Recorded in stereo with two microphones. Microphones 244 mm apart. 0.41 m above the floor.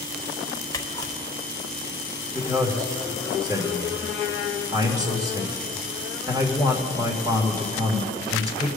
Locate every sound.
0.7 s a camera shutter: 15° left (ahead or behind), 0.8 m
2.3 s a man speaking: 15° right (ahead or behind), 1.5 m